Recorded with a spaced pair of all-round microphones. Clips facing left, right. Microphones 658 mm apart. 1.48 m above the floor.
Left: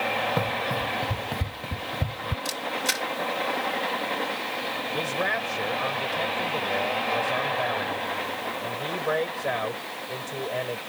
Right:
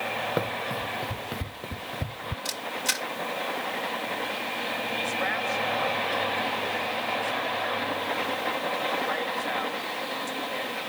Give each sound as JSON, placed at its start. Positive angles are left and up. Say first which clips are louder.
{"t": 0.4, "sound": "running footsteps", "louder": "left 2 dB", "side_deg": 25}
{"t": 2.5, "sound": "a camera shutter", "louder": "left 4 dB", "side_deg": -10}
{"t": 4.9, "sound": "a man speaking", "louder": "left 5 dB", "side_deg": 75}